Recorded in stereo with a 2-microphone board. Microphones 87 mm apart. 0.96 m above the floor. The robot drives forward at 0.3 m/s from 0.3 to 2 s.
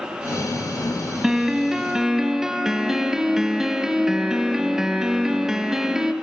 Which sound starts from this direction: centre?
A piano, at 1.2 s.